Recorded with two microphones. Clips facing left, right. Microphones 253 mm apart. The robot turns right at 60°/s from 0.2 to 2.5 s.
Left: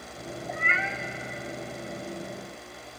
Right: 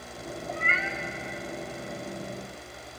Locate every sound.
0.5 s a cat meowing: 25° right (ahead or behind), 1.6 m; by 1.0 s 55° right (ahead or behind), 1.6 m